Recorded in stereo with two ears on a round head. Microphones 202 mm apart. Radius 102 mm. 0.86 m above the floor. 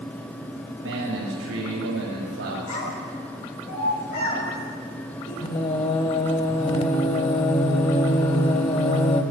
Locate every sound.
0.8 s a man speaking: 60° right (ahead or behind), 5.5 m
2.7 s a child speaking: 80° left, 6 m
5.4 s singing: 25° left (ahead or behind), 0.9 m